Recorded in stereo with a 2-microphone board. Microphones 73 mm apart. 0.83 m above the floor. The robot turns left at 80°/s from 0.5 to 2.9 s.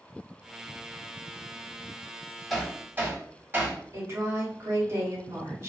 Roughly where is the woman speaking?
Right.